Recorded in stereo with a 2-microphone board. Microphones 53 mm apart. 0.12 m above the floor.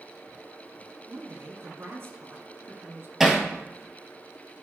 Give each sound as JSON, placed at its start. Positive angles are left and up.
{"t": 1.1, "sound": "a woman speaking", "side_deg": -50, "distance_m": 1.6}
{"t": 3.2, "sound": "hammering", "side_deg": -5, "distance_m": 1.5}